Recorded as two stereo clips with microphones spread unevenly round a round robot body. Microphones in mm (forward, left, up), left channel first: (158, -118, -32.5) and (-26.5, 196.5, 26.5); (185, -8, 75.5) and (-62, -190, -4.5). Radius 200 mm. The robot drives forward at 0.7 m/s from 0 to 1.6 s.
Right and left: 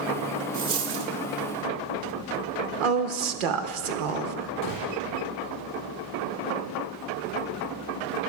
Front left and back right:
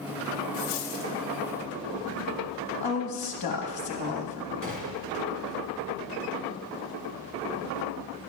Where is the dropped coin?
65° left, 1.1 m; by 1.1 s 90° left, 1.0 m.